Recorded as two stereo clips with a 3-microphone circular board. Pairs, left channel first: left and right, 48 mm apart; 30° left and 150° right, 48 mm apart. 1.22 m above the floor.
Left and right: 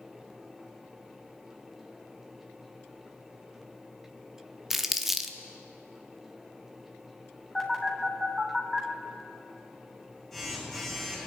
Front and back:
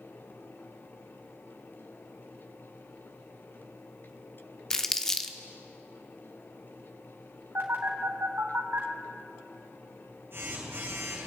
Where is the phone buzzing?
175° left, 3 m.